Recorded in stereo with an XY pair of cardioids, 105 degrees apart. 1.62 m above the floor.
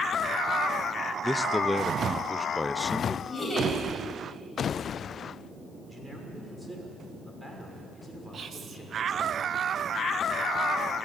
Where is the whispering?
50° right, 2 m.